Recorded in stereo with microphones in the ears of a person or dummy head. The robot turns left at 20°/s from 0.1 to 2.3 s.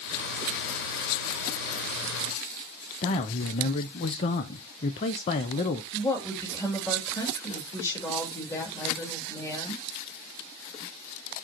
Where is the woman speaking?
15° left (ahead or behind), 2.5 m.